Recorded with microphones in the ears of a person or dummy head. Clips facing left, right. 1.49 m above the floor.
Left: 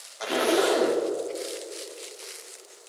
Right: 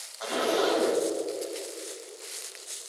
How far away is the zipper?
About 1.8 m.